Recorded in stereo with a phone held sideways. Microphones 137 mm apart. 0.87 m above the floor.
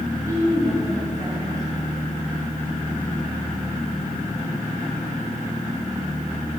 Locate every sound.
0.3 s a woman speaking: 25° right (ahead or behind), 3.5 m